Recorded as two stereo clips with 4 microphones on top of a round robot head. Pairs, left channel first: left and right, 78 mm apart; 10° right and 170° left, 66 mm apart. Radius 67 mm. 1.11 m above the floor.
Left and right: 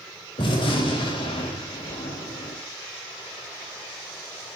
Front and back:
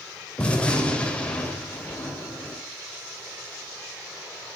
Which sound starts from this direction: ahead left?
A gunshot, at 0.4 s.